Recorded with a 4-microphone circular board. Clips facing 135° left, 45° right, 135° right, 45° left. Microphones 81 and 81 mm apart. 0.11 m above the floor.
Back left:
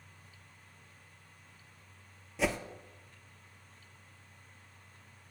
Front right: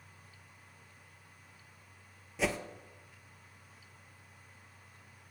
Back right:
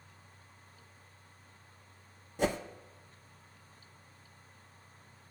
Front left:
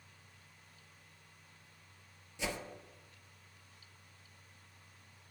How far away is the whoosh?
About 0.6 m.